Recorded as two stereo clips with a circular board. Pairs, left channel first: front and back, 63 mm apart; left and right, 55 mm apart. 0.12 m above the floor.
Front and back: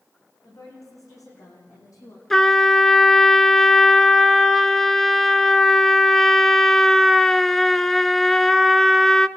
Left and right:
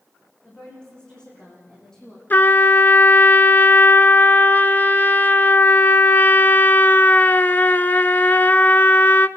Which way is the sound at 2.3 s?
80° left.